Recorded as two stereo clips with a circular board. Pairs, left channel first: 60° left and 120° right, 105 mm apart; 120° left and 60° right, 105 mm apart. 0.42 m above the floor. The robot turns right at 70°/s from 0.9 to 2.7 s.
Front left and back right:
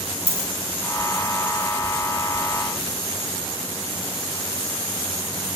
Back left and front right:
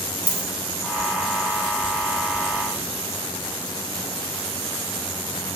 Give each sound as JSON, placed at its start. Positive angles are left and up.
{"t": 0.3, "sound": "a dropped coin", "azimuth_deg": 75, "distance_m": 1.3}